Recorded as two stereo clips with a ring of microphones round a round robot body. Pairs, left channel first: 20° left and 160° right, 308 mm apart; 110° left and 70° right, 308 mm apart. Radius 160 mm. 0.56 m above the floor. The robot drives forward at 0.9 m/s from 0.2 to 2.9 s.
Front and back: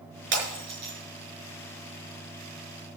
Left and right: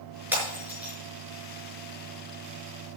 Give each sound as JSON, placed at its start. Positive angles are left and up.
{"t": 0.3, "sound": "breaking glass", "azimuth_deg": -150, "distance_m": 6.0}